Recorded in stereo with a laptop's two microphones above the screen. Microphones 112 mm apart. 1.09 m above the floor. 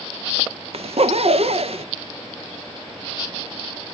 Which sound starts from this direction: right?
A zipper, at 0.7 s.